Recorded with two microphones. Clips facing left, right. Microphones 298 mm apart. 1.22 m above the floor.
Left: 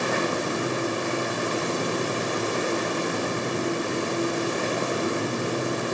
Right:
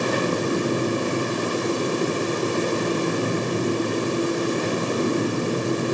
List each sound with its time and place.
Only background noise.